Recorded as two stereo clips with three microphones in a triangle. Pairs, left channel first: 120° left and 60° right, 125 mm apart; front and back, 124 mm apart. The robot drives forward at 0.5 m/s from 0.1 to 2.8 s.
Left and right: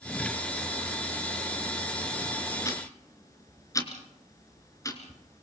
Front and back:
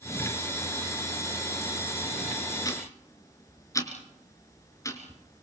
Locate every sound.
2.6 s ticking: 60° left, 3 m